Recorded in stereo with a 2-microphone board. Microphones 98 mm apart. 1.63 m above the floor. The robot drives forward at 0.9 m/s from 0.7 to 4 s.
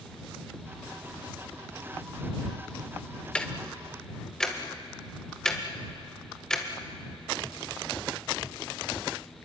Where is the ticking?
10° left (ahead or behind), 1.2 m; by 6.7 s 5° left (ahead or behind), 1.8 m.